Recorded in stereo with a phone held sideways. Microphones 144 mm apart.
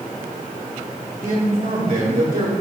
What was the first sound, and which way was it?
A man speaking, 70° right (ahead or behind).